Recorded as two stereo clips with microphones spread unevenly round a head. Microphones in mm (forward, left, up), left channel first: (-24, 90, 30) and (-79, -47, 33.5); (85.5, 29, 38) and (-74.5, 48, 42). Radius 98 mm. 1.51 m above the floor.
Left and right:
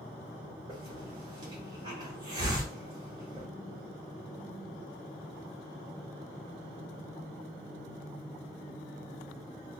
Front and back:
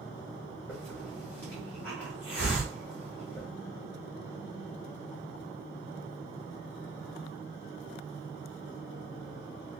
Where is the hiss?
85° right, 0.9 m.